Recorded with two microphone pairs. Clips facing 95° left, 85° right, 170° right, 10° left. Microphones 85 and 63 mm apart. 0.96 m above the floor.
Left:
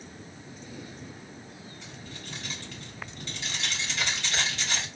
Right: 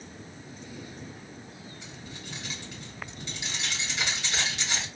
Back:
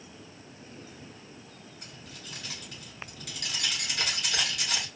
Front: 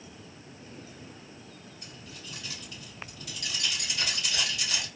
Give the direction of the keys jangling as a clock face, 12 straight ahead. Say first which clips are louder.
Even, front 1 dB; 5 o'clock.